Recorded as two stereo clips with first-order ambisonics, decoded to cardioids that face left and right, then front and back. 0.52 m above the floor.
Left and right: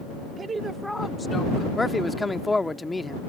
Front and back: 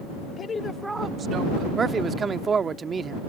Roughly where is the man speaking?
Behind left.